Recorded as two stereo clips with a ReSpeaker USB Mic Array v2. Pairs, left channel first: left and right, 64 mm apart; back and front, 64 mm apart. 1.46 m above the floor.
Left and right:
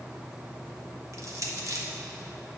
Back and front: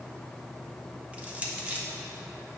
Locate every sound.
1.1 s crushing: 65° right, 1.1 m